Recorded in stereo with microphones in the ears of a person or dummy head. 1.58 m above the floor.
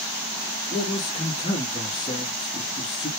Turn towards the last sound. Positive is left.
turn(degrees=25)  # may be behind; listen again after turning